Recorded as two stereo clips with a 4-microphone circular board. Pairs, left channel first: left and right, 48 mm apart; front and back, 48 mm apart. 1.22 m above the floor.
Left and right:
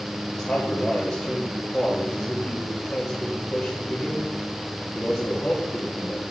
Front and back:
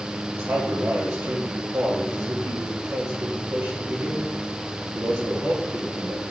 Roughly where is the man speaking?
Behind left.